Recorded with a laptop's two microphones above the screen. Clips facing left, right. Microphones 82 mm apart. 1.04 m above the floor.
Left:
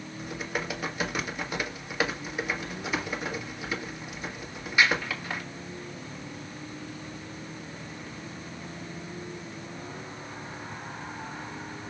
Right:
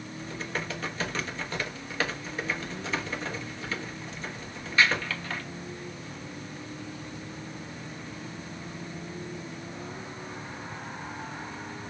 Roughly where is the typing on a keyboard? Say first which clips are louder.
Left 2 dB; centre.